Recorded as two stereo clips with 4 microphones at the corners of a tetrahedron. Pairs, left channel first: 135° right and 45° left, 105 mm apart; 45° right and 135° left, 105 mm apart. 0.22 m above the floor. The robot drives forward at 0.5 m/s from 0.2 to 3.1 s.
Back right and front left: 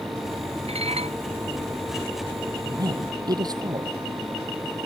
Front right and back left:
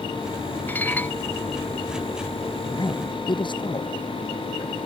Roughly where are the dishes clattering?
Ahead left.